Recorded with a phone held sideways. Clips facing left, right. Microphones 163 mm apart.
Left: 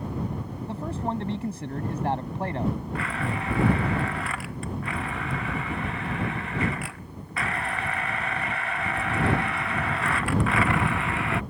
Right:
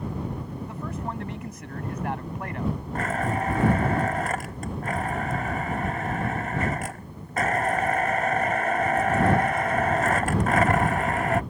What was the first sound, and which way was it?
A man speaking, 30° left (ahead or behind).